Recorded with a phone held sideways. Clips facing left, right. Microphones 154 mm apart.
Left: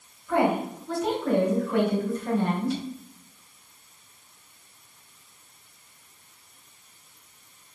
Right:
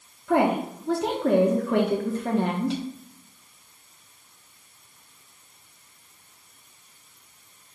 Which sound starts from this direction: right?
A woman speaking, at 0.3 s.